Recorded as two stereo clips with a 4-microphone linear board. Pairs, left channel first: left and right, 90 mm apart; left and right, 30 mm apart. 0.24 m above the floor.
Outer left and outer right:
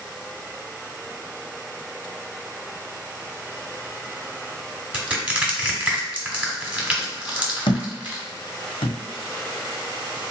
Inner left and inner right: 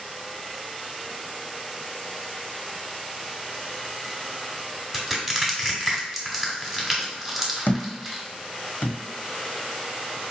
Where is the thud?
85° left, 1.0 m.